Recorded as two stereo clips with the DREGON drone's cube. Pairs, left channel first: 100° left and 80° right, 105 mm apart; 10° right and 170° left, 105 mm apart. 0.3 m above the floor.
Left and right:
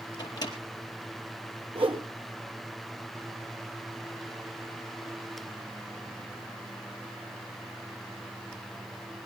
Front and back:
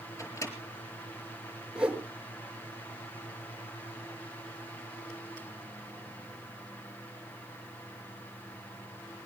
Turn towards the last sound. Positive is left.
turn(degrees=-110)